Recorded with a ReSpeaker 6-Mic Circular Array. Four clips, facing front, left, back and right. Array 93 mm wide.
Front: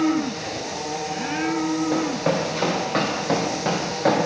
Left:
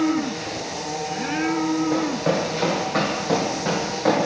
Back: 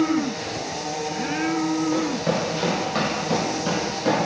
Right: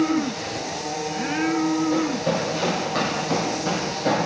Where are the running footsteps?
25° left, 2.5 m; by 4.3 s 15° left, 3.5 m.